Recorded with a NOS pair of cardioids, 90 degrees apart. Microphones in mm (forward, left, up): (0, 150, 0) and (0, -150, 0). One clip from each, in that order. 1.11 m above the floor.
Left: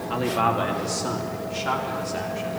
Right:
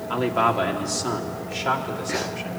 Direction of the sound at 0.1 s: 15° right.